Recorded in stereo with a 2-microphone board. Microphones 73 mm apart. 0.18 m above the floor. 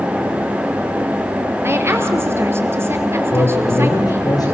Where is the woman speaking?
35° right (ahead or behind), 3 m.